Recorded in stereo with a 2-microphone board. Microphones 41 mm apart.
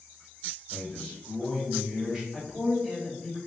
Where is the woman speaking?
25° left (ahead or behind), 1.5 m.